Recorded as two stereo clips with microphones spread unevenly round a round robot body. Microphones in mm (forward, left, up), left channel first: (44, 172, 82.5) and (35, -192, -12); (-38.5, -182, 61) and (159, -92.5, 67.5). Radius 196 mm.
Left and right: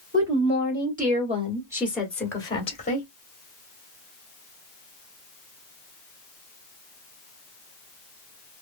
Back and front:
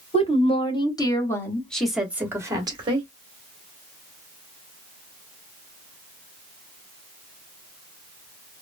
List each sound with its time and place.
0.1 s a woman speaking: 105° right, 1.7 m; by 3.1 s 20° left, 1.3 m